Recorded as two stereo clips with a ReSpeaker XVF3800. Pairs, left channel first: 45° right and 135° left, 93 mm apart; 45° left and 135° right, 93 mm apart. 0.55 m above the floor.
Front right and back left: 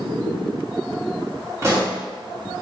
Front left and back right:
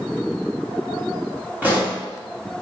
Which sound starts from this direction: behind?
A pop, at 1.6 s.